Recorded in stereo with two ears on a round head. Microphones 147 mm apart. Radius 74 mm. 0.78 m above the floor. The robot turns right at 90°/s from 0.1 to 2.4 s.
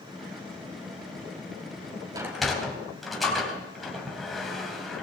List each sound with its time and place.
2.1 s a sliding door: 20° right (ahead or behind), 3.5 m; by 5.0 s centre (ahead or behind), 3.5 m